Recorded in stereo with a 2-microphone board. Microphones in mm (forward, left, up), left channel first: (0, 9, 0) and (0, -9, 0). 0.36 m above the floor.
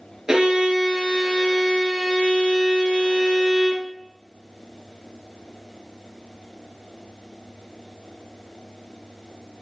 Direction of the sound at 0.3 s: 45° right (ahead or behind).